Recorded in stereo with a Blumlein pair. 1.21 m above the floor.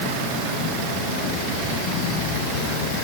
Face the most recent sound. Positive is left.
No sound to turn to.